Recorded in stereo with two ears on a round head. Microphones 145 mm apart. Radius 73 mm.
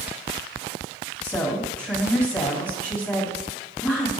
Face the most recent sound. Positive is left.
turn(degrees=10)  # may be behind; listen again after turning